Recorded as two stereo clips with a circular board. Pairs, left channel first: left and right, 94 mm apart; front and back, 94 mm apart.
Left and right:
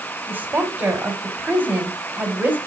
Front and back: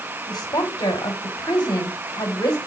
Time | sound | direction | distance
0.3 | a woman speaking | 30° right | 1.7 m